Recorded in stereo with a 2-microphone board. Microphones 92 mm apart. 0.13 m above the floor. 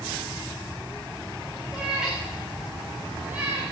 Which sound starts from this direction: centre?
A cat meowing, at 1.7 s.